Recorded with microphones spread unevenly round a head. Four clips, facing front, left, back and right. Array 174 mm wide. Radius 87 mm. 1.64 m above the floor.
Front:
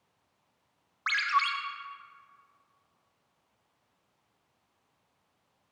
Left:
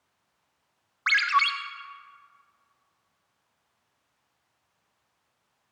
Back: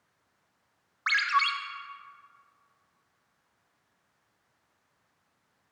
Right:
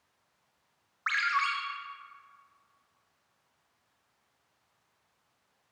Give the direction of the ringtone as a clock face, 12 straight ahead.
10 o'clock.